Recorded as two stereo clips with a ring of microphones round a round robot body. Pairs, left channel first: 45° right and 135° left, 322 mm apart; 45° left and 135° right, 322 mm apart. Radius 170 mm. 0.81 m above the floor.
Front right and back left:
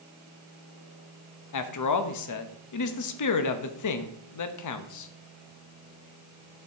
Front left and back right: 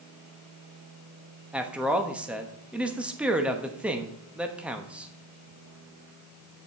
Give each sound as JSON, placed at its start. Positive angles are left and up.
{"t": 1.5, "sound": "a man speaking", "azimuth_deg": -50, "distance_m": 1.0}